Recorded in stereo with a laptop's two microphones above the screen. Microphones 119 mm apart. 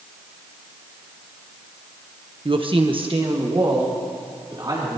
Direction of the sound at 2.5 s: 45° right (ahead or behind).